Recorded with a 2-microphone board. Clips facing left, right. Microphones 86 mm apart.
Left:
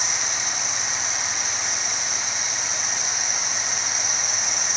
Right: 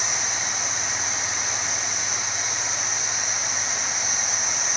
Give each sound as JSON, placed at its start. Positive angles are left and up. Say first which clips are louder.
{"t": 0.0, "sound": "an insect", "louder": "even", "side_deg": 80, "distance_m": 3.5}